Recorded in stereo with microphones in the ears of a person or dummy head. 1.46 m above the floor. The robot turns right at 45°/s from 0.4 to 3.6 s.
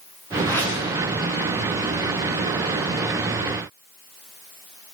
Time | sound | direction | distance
0.5 | a whoosh | 15° left (ahead or behind) | 8 m